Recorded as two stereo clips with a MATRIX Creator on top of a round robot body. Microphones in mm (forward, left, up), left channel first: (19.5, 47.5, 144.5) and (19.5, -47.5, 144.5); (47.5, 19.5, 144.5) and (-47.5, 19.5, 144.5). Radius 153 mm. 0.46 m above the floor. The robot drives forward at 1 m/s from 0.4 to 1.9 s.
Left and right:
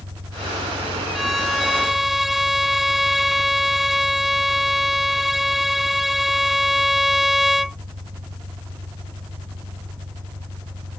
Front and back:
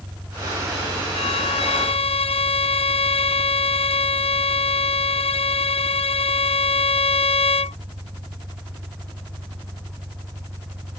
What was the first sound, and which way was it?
An engine running, 105° right.